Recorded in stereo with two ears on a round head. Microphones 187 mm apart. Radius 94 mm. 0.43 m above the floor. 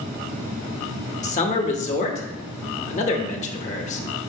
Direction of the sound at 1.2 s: 35° left (ahead or behind).